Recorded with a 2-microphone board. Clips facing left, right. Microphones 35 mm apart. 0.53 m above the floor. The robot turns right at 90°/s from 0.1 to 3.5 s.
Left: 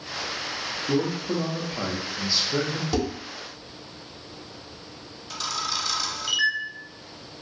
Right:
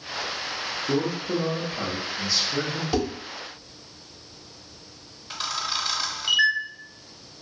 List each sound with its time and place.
0.9 s a man speaking: 15° right (ahead or behind), 0.6 m; by 2.8 s 15° left (ahead or behind), 0.6 m
2.9 s dishes clattering: 5° right (ahead or behind), 1.2 m; by 3.1 s 20° right (ahead or behind), 1.2 m
5.3 s a camera shutter: 25° right (ahead or behind), 0.6 m